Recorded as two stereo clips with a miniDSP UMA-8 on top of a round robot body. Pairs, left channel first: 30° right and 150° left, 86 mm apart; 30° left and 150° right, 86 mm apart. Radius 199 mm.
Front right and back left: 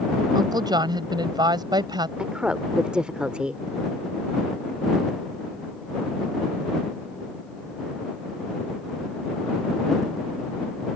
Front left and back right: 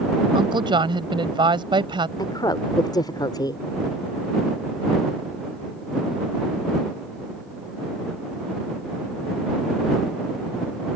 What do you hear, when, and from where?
0.3 s a woman speaking: 175° right
2.2 s a woman speaking: 70° left